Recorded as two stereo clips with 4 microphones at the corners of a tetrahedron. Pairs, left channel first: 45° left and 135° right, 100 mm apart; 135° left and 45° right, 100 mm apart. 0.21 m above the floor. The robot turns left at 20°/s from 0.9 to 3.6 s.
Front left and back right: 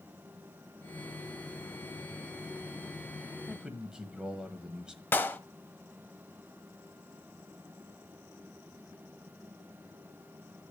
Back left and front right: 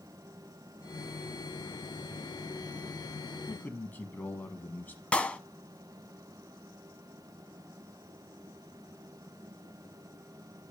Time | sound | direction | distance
3.5 | a man speaking | 160° left | 1.2 m
5.1 | a clap | 80° left | 0.8 m